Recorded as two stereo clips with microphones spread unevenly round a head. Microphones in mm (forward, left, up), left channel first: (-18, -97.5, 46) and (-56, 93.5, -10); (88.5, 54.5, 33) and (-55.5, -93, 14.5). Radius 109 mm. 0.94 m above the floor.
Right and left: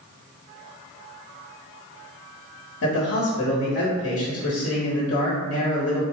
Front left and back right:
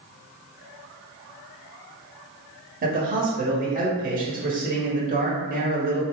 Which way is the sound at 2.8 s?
105° right.